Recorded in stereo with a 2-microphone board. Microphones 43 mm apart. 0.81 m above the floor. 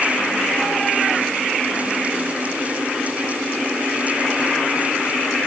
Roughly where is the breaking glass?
No breaking glass in this recording.